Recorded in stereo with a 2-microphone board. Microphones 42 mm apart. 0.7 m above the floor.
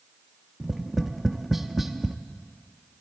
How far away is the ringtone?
No ringtone in this recording.